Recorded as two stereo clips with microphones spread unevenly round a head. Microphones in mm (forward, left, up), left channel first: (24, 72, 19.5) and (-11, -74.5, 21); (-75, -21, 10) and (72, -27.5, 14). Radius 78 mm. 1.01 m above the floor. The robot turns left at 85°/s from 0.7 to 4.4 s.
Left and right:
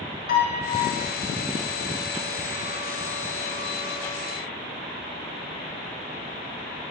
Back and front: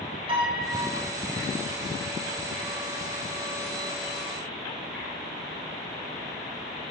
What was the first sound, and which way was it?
A piano, 55° left.